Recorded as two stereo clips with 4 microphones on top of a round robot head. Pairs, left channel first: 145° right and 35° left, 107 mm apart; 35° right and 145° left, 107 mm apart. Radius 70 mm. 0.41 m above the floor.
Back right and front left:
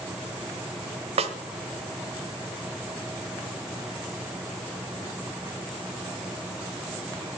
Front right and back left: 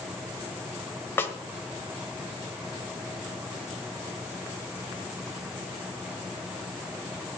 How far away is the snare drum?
About 1.3 m.